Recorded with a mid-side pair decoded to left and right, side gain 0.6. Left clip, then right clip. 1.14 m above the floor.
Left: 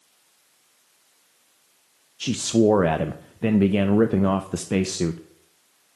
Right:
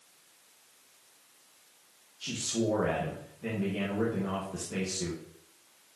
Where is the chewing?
No chewing in this recording.